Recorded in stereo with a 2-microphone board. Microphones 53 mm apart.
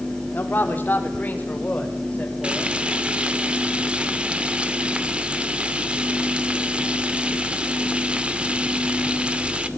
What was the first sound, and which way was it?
A man speaking, 40° left (ahead or behind).